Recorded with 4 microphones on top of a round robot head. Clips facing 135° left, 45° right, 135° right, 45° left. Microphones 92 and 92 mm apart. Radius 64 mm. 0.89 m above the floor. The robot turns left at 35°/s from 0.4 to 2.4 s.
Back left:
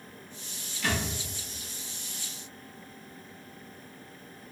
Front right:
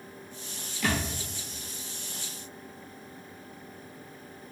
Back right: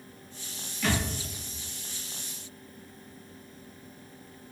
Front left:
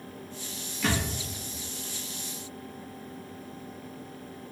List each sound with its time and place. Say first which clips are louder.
0.8 s a thud: front right 2 dB, even; 40° right, 1.4 m; by 1.1 s 45° right, 1.4 m